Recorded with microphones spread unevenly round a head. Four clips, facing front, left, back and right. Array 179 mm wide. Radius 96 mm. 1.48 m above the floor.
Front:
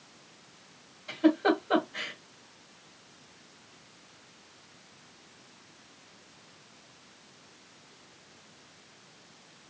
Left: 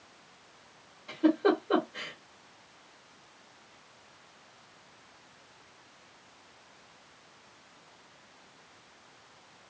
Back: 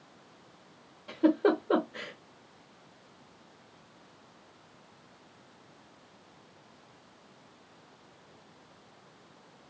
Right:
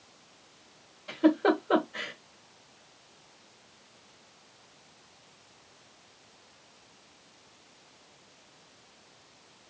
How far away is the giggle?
About 1.5 m.